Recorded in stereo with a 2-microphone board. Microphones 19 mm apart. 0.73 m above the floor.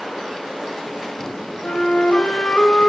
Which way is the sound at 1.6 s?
65° left (ahead or behind).